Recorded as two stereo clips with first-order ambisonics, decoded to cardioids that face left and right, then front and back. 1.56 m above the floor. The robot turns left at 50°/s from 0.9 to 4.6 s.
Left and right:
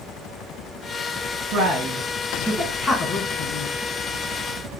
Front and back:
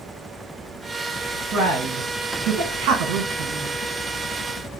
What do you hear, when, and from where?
1.5 s a man speaking: 130° right, 1.1 m; by 3.7 s 120° left, 1.1 m